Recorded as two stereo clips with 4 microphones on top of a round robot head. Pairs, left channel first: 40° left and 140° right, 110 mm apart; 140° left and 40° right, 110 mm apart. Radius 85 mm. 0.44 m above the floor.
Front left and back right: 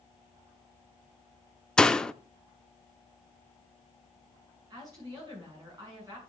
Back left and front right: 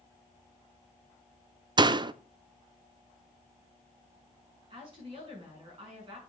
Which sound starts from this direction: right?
A woman speaking, at 4.7 s.